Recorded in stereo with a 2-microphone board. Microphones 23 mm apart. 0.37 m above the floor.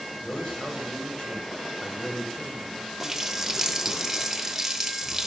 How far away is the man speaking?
About 2 m.